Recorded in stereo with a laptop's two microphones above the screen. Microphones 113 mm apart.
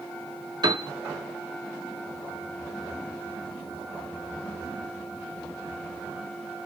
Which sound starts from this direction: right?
A piano, at 0.6 s.